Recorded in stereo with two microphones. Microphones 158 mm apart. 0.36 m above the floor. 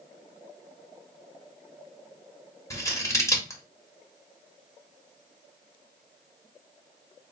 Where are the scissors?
20° left (ahead or behind), 1.2 m.